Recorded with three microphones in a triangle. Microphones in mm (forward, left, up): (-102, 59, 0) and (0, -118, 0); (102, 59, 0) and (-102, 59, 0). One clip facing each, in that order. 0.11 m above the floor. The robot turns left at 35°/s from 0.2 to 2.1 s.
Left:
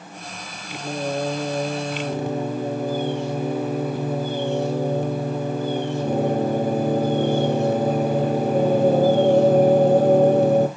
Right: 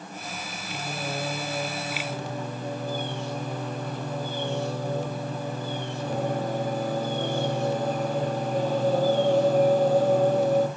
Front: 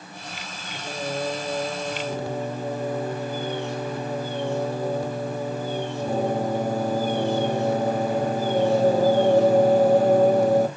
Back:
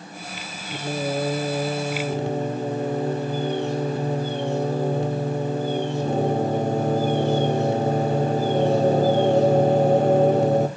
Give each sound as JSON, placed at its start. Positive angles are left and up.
{"t": 0.7, "sound": "singing", "azimuth_deg": 165, "distance_m": 1.1}